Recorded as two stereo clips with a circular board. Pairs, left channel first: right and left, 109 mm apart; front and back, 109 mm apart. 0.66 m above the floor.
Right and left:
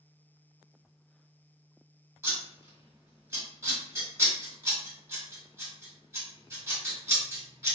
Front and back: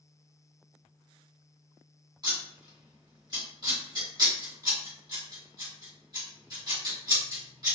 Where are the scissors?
145° left, 1.3 m.